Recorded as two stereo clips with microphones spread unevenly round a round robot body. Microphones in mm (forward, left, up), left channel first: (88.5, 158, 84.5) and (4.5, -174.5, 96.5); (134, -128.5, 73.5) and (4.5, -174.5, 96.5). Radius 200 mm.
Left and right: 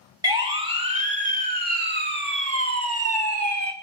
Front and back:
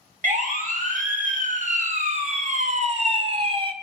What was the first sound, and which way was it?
A siren, 175° left.